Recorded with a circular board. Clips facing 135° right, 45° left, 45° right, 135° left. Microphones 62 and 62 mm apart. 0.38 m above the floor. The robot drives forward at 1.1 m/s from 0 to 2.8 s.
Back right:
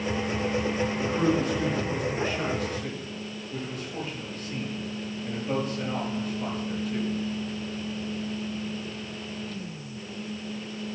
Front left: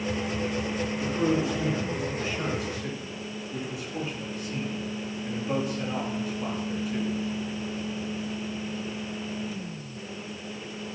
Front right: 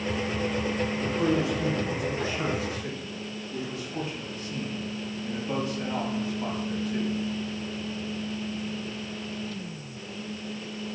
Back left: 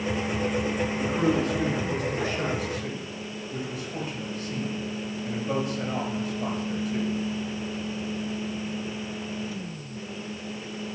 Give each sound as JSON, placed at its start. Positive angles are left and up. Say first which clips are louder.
{"t": 1.0, "sound": "a man speaking", "louder": "even, back left 1 dB", "azimuth_deg": 180, "distance_m": 3.5}